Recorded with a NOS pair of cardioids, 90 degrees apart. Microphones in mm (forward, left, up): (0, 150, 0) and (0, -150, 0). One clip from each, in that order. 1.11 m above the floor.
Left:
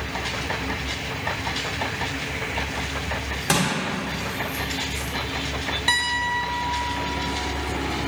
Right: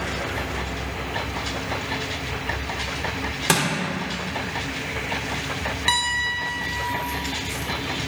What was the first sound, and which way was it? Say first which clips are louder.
Crushing: right 1 dB; 30° right.